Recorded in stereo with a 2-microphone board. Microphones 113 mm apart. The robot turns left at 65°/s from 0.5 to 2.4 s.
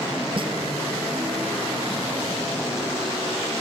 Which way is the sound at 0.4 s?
50° right (ahead or behind).